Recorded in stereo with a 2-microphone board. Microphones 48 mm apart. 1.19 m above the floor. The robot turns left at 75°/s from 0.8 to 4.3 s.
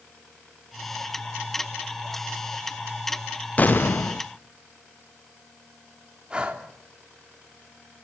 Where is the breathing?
20° right (ahead or behind), 3 m.